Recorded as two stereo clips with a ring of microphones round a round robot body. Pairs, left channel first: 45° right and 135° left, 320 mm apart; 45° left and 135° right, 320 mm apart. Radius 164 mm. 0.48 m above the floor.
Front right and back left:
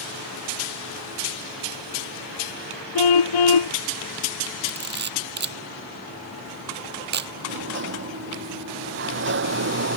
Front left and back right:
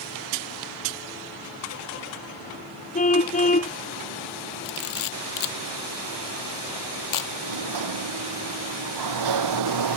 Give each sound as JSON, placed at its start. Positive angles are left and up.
{"t": 3.0, "sound": "a car horn", "azimuth_deg": -25}
{"t": 4.7, "sound": "a camera shutter", "azimuth_deg": 75}
{"t": 7.4, "sound": "a sliding door", "azimuth_deg": -170}